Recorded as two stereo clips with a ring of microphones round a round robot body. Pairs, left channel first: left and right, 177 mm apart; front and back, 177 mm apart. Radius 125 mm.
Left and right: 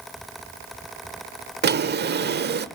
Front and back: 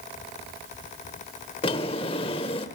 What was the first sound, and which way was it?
A drawer, 70° right.